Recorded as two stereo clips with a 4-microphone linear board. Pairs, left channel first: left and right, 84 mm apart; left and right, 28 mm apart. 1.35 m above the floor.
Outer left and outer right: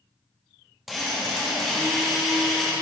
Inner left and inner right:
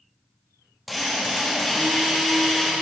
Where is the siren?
No siren in this recording.